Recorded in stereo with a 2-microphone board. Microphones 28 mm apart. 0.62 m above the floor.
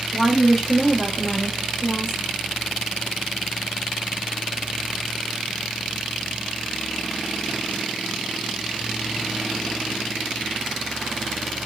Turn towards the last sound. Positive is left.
turn(degrees=5)  # may be behind; listen again after turning